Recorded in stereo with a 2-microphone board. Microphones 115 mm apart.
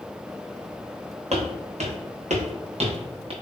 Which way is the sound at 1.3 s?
70° right (ahead or behind).